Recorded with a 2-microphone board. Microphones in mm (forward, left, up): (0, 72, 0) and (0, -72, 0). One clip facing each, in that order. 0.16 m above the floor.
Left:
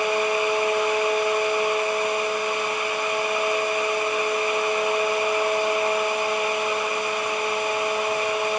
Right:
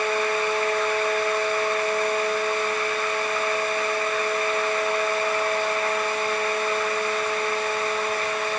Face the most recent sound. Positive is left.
No sound to turn to.